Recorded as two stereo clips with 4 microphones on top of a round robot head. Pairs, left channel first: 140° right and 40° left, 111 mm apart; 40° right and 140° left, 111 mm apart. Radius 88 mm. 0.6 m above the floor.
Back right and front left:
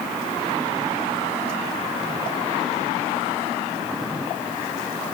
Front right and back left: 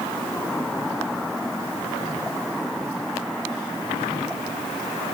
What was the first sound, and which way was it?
Only background noise.